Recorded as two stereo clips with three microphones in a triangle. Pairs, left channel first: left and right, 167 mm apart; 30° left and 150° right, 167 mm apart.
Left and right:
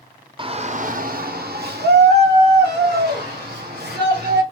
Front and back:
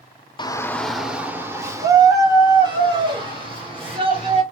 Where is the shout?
35° right, 0.6 m; by 4.4 s 90° right, 3 m.